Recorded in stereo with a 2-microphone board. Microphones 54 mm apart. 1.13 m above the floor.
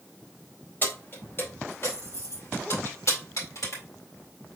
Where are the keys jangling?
35° left (ahead or behind), 2.5 m; by 3.8 s 75° left (ahead or behind), 4 m.